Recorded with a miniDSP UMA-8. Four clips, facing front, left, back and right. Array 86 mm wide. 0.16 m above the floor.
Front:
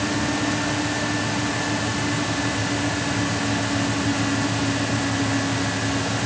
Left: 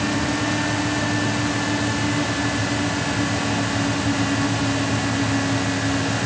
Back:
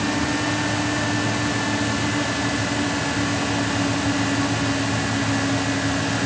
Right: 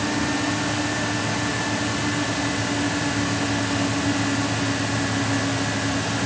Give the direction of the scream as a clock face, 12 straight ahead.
I don't hear a scream.